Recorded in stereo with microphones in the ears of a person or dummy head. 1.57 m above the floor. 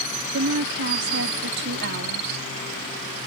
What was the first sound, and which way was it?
A woman speaking, 65° right (ahead or behind).